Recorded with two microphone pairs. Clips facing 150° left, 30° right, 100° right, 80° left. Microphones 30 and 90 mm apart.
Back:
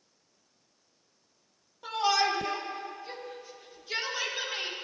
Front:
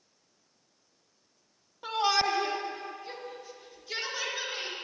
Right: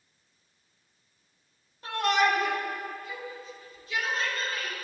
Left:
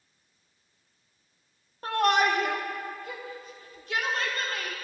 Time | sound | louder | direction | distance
1.8 | a shout | even, left 2 dB | 40° left | 1.9 m